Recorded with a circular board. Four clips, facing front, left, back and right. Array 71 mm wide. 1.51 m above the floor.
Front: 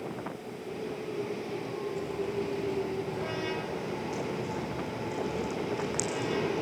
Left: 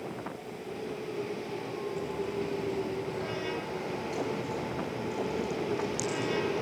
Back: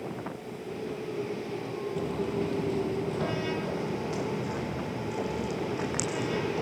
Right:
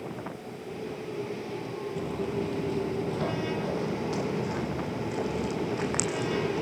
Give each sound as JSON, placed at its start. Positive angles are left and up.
{"t": 2.0, "sound": "footsteps", "azimuth_deg": -155, "distance_m": 2.5}